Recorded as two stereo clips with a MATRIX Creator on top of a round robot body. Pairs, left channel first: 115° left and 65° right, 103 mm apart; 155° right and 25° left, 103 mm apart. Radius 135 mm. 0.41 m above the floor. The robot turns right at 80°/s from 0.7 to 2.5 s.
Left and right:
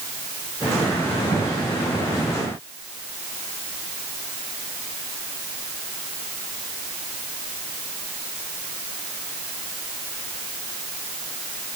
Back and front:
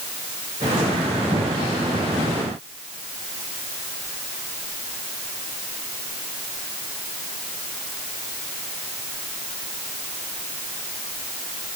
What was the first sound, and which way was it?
Only background noise.